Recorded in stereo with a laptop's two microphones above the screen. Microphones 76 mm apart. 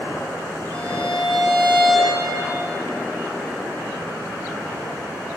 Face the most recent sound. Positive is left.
turn(degrees=20)  # may be behind; listen again after turning